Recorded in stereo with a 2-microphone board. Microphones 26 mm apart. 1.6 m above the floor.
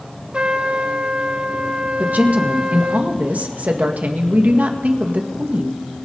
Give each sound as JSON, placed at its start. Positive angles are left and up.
{"t": 0.3, "sound": "a trumpet", "side_deg": -45, "distance_m": 0.9}
{"t": 2.0, "sound": "a woman speaking", "side_deg": -75, "distance_m": 1.9}